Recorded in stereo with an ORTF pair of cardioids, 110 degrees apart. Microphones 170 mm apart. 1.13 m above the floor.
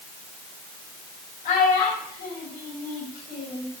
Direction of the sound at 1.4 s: 60° left.